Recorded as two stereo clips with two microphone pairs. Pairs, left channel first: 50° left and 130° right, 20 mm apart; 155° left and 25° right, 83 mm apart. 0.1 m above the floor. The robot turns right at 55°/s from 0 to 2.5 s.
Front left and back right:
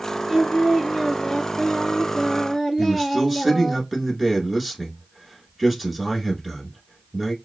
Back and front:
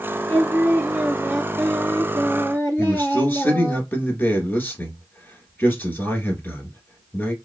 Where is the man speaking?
Straight behind, 1.1 m.